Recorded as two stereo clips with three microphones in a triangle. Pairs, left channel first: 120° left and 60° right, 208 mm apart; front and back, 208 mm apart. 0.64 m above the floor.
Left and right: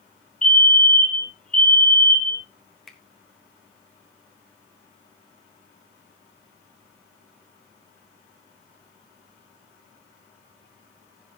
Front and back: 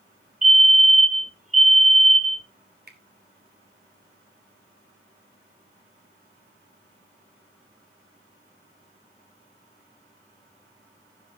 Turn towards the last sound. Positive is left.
turn(degrees=-150)